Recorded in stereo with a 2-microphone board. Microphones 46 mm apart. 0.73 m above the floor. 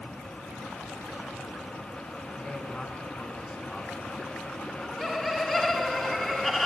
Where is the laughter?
5° left (ahead or behind), 7 m.